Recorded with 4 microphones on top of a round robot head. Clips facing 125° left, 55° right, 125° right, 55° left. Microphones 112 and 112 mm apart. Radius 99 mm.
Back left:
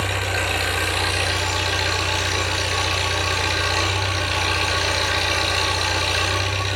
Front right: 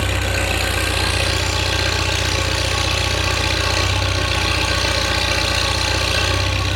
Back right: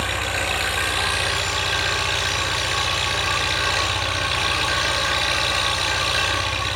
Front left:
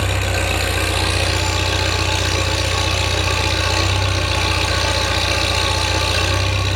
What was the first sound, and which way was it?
An engine running, straight ahead.